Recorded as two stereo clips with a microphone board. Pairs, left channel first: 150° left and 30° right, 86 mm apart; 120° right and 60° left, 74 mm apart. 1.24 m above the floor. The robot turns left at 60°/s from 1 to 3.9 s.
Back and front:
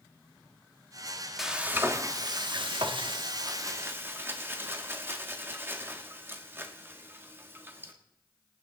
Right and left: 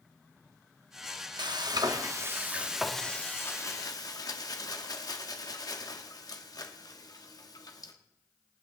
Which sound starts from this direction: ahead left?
Frying, at 1.4 s.